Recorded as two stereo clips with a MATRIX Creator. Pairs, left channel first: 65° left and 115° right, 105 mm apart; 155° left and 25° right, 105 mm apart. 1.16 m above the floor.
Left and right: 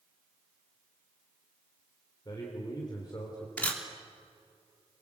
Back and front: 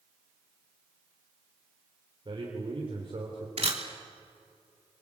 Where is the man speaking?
15° left, 3.5 m.